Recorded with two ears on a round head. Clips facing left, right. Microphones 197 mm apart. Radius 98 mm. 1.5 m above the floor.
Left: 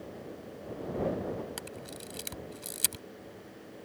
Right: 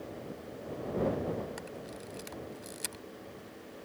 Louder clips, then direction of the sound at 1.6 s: Even; 50° left (ahead or behind).